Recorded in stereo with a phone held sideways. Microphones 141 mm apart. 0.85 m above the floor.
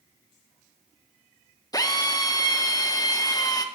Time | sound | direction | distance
1.7 | a drill | 25° left (ahead or behind) | 0.8 m